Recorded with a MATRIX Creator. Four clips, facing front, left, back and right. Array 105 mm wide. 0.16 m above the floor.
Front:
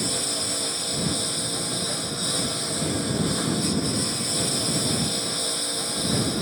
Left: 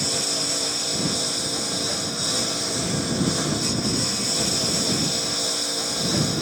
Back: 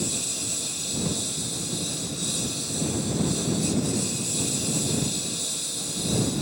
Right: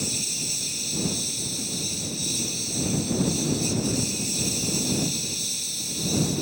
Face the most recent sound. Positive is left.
turn(degrees=60)